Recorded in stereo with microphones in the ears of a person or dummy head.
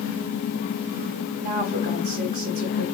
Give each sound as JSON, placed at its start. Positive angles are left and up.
{"t": 1.4, "sound": "a woman speaking", "side_deg": -40, "distance_m": 0.7}